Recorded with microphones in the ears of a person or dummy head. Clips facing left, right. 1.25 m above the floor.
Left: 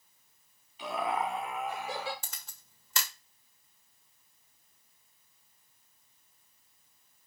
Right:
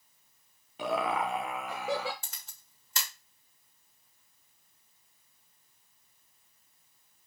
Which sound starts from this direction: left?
A camera shutter, at 2.2 s.